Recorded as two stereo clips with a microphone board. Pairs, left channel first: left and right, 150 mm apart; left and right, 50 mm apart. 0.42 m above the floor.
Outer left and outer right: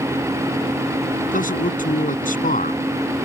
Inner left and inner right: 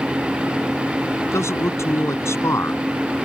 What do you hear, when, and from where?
1.2 s a man speaking: 65° left (ahead or behind)